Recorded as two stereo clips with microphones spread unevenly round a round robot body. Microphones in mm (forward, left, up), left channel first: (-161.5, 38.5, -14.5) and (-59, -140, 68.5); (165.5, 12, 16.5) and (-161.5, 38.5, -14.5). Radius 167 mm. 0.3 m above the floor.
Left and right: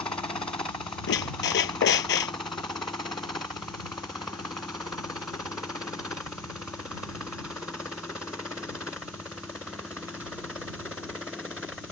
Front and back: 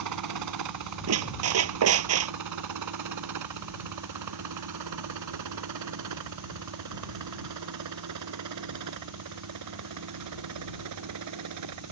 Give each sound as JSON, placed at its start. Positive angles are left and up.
{"t": 0.0, "sound": "a helicopter", "azimuth_deg": -170}
{"t": 1.1, "sound": "a squeak", "azimuth_deg": 135}